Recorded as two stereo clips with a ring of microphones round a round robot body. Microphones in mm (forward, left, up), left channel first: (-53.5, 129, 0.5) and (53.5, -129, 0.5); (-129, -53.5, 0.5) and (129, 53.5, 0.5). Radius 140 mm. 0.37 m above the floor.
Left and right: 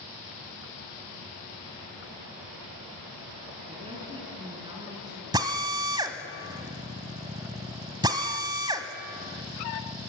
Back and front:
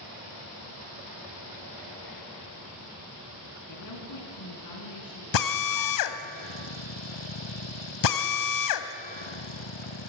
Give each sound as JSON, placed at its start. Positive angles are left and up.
{"t": 3.7, "sound": "a woman speaking", "azimuth_deg": -135, "distance_m": 5.0}
{"t": 5.3, "sound": "a drill", "azimuth_deg": -145, "distance_m": 1.1}